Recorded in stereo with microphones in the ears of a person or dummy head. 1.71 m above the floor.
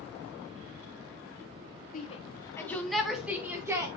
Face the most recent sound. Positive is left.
turn(degrees=-10)  # may be behind; listen again after turning